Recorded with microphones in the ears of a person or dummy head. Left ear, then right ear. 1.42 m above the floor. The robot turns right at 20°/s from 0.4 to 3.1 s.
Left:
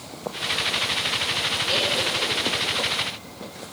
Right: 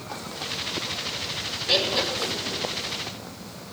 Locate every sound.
1.7 s laughter: 30° right (ahead or behind), 4 m; by 2.6 s 15° right (ahead or behind), 4 m